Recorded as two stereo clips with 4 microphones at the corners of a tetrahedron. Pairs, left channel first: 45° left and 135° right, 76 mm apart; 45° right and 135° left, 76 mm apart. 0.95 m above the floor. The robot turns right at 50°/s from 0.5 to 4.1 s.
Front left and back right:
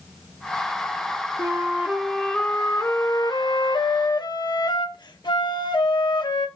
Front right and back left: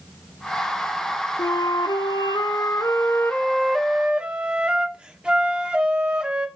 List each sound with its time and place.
1.4 s a flute: 80° right, 1.1 m; by 6.5 s 55° left, 1.1 m